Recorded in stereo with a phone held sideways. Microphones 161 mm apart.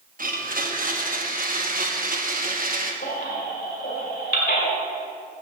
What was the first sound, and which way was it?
A blender, 60° right (ahead or behind).